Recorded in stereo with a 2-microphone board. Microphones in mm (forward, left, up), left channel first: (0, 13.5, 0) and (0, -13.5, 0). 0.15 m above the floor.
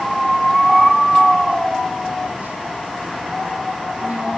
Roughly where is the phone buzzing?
Right.